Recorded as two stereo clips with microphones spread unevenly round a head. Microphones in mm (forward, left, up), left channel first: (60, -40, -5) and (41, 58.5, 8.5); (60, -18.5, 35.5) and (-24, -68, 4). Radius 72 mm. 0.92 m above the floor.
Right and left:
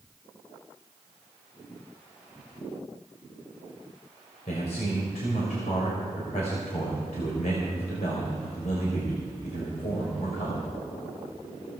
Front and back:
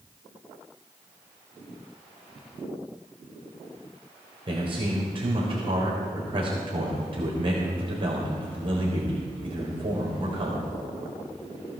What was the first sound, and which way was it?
A man speaking, 120° right.